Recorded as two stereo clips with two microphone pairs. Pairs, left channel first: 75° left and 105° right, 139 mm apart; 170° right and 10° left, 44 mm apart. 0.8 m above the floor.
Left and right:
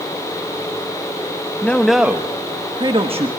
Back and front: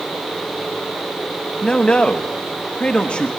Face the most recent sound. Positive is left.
turn(degrees=-115)